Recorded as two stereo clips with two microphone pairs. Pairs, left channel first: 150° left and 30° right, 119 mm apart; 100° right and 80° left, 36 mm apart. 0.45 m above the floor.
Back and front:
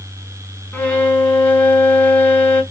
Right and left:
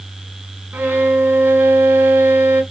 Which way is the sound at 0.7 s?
70° left.